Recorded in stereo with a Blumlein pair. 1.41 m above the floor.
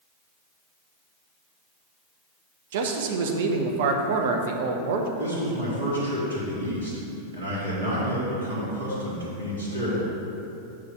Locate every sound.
2.7 s a man speaking: 55° right, 0.8 m
5.2 s a man speaking: 65° right, 2 m